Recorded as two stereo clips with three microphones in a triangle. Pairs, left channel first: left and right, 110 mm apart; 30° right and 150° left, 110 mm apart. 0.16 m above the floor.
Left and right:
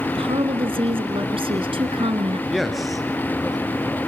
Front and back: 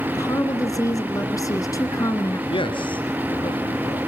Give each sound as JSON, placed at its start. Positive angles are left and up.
{"t": 0.1, "sound": "a woman speaking", "azimuth_deg": -80, "distance_m": 2.5}
{"t": 2.5, "sound": "a man speaking", "azimuth_deg": 0, "distance_m": 2.5}